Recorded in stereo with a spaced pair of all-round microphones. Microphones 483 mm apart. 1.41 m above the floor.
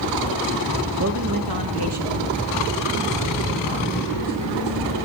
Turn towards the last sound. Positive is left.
turn(degrees=-70)  # may be behind; listen again after turning